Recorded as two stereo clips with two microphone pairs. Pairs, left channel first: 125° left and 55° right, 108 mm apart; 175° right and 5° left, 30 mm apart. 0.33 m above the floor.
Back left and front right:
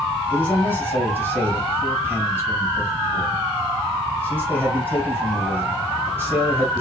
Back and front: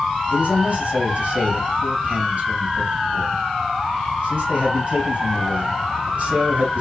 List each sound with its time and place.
0.3 s a man speaking: 10° left, 2 m